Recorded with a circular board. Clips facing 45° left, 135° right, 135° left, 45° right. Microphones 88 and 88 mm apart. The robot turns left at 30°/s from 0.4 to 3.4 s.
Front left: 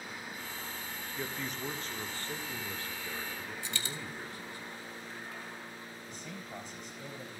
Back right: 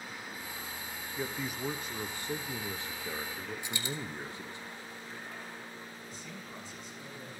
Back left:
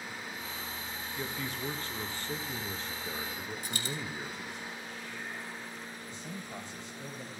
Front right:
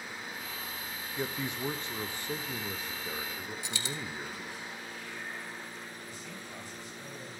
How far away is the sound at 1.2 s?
About 0.6 m.